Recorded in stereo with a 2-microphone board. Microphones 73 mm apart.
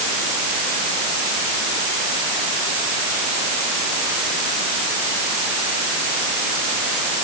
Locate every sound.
Only background noise.